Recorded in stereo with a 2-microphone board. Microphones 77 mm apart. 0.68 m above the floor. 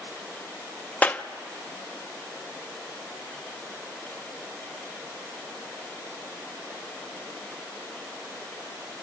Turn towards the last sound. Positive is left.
turn(degrees=20)  # may be behind; listen again after turning